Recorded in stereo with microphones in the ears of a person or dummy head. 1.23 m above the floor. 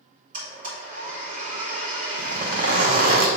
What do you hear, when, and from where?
0.3 s a blender: 45° right (ahead or behind), 3 m
2.2 s a zipper: 50° right (ahead or behind), 1.0 m